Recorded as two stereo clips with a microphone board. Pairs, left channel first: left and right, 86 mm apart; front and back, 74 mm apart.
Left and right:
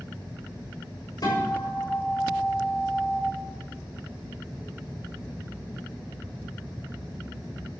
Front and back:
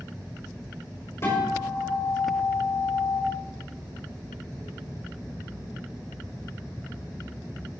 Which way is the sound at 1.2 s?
55° left.